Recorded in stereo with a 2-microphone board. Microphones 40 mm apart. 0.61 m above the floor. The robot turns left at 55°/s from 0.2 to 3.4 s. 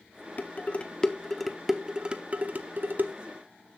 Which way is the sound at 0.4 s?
45° left (ahead or behind).